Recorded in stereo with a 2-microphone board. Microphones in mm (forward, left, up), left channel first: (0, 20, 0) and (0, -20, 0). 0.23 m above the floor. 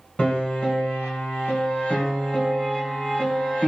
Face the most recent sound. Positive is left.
turn(degrees=30)  # may be behind; listen again after turning